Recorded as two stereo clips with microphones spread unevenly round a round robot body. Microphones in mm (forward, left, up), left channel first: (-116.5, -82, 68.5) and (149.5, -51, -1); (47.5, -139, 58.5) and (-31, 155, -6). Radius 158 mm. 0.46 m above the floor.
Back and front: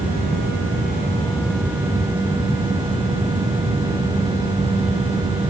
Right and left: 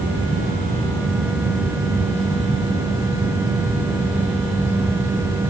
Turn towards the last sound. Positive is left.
No sound to turn to.